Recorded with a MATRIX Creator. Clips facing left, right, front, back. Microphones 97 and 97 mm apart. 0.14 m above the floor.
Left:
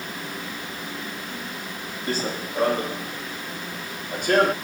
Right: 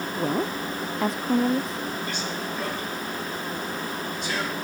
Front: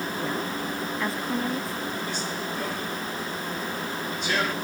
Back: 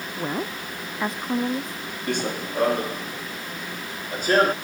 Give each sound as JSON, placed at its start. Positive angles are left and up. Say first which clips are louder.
{"t": 0.2, "sound": "a woman speaking", "louder": "right 8 dB, back 4 dB", "azimuth_deg": -110}
{"t": 2.1, "sound": "running footsteps", "louder": "left 2 dB, back 4 dB", "azimuth_deg": 145}